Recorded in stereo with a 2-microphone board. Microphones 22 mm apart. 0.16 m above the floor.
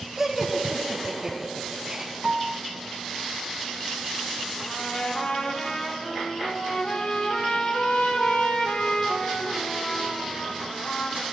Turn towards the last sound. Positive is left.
turn(degrees=70)  # may be behind; listen again after turning